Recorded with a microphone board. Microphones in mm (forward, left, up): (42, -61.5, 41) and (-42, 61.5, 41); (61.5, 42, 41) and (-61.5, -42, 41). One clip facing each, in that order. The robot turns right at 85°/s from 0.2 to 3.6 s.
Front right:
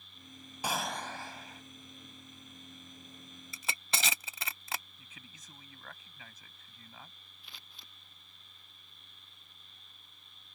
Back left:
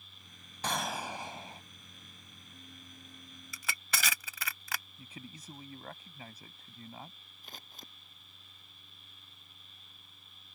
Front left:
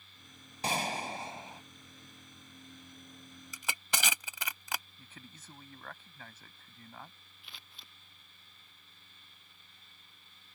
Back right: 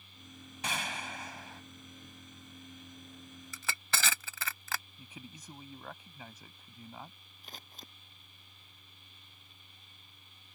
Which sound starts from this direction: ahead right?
Crushing, at 3.5 s.